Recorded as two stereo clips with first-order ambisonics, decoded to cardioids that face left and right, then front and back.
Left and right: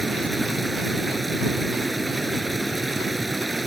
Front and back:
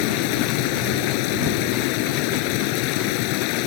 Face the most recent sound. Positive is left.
turn(degrees=-10)